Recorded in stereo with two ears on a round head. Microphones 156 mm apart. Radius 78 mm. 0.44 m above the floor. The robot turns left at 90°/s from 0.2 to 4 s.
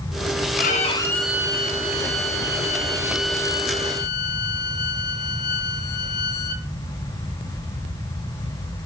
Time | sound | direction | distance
0.6 | a violin | 60° left | 2.5 m